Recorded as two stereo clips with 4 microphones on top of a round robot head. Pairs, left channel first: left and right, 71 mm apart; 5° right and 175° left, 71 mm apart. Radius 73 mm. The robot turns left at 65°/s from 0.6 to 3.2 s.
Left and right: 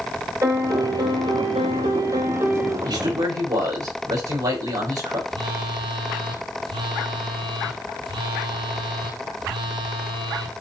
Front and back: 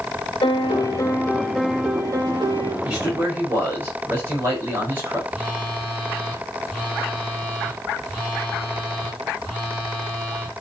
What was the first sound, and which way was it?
A piano, 30° right.